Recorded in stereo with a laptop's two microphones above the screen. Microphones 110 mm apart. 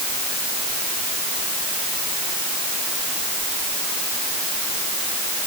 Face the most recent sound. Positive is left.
No sound to turn to.